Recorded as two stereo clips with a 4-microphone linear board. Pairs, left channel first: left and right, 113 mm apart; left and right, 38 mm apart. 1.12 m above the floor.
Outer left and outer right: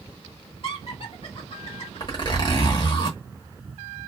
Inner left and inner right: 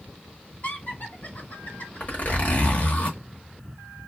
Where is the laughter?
55° left (ahead or behind), 1.6 m.